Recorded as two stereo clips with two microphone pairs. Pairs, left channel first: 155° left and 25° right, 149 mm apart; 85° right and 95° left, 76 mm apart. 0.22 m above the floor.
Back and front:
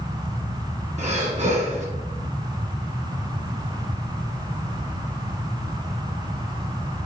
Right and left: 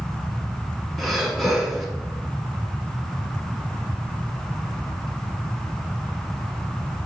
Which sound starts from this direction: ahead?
Breathing, at 1.0 s.